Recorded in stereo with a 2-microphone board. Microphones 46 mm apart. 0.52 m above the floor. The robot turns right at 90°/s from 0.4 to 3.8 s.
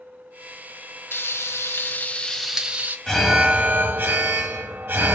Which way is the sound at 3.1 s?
170° left.